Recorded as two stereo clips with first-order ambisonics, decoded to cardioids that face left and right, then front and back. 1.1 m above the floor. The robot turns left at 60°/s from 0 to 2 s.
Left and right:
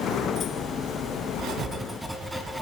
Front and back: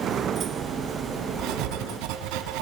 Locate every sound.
1.4 s writing: 140° right, 3 m; by 2.6 s 175° right, 3 m